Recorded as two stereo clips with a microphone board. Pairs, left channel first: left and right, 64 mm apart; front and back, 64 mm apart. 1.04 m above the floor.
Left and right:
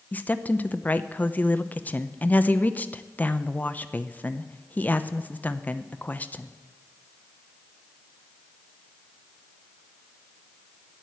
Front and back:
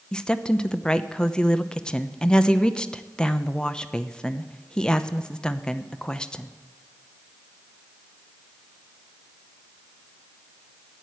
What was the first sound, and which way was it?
A woman speaking, 60° left.